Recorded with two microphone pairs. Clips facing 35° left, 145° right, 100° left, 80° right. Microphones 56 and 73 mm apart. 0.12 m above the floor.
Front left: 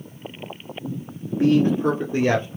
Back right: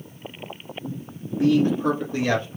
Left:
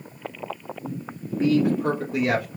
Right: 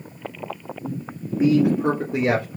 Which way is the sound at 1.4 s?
10° right.